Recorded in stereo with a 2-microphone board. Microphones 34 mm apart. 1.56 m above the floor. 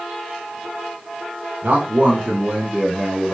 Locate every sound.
1.6 s a man speaking: 60° right (ahead or behind), 1.2 m; by 3.3 s 20° right (ahead or behind), 3 m